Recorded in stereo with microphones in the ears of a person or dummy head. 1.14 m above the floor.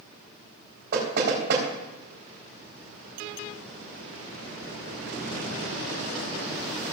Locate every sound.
0.9 s knocking: 65° right (ahead or behind), 4 m